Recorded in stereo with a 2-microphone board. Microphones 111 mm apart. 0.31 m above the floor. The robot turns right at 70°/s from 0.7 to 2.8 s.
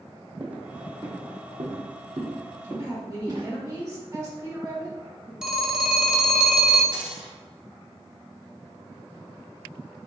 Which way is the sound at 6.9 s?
10° right (ahead or behind).